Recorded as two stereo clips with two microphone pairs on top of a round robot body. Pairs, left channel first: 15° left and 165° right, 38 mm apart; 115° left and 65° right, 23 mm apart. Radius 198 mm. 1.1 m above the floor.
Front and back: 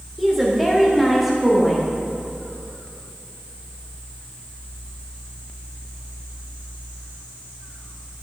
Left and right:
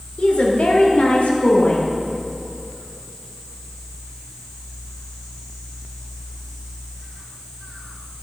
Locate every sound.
0.2 s a woman speaking: 115° left, 1.8 m